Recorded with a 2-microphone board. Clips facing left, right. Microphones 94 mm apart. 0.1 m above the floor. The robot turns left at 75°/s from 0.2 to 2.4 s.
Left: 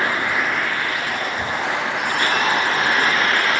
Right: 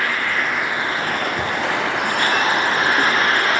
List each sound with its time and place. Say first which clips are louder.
0.0 s an insect: left 1 dB; 20° left, 0.9 m; by 3.6 s 145° right, 0.9 m
1.4 s a cupboard door: right 2 dB; 80° right, 3.5 m; by 1.6 s 65° right (ahead or behind), 3.5 m